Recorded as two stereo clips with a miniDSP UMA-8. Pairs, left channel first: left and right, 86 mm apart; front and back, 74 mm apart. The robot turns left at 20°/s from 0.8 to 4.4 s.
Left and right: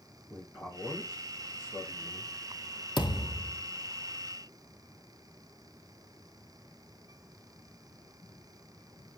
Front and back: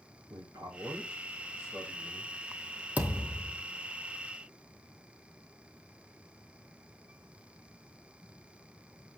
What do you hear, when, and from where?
0.3 s a man speaking: 160° left, 5 m; by 2.3 s 130° left, 5 m
3.0 s a thud: 110° left, 1.7 m; by 3.6 s 100° left, 1.7 m